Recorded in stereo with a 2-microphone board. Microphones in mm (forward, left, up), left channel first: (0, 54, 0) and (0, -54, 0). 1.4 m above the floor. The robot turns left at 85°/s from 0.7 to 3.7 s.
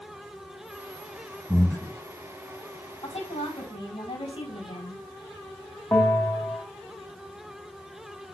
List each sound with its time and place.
1.5 s breathing: 175° right, 0.6 m; by 2.0 s 145° left, 0.6 m
3.0 s a woman speaking: 120° left, 4 m; by 5.0 s 65° left, 4 m
5.9 s a bell: 20° left (ahead or behind), 1.1 m